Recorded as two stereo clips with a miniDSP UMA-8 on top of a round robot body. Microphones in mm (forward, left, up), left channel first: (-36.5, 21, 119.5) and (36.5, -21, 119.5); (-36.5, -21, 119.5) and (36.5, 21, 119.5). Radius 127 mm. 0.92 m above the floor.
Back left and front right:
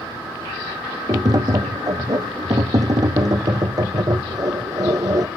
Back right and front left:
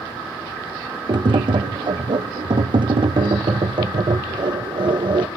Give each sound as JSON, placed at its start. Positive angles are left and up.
{"t": 1.1, "sound": "tapping", "azimuth_deg": 10, "distance_m": 0.8}